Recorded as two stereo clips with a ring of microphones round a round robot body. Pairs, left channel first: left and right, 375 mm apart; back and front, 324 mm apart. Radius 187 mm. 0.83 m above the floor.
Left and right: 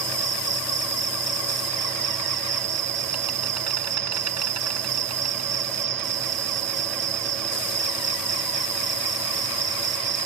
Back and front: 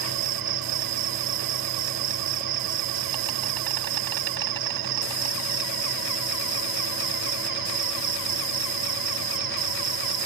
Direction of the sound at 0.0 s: 40° right.